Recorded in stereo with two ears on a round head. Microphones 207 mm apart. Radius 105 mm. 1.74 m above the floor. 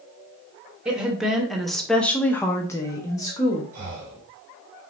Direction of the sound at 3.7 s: 65° right (ahead or behind).